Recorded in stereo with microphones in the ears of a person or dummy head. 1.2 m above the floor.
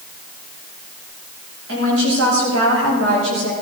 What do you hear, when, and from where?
1.7 s a woman speaking: 75° right (ahead or behind), 5.5 m; by 3.5 s 80° right, 4.5 m